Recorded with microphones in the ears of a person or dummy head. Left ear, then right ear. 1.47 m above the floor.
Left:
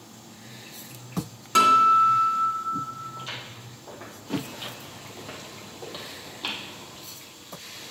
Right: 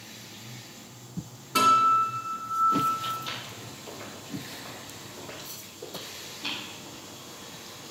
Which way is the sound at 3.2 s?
10° right (ahead or behind).